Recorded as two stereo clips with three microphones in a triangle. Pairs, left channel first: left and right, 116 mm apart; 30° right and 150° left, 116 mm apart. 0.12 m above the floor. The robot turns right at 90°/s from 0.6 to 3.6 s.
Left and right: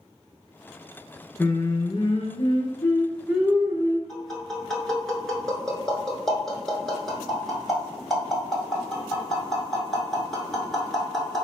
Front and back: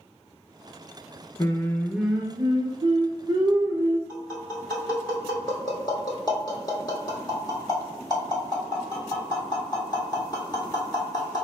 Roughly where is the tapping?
Ahead.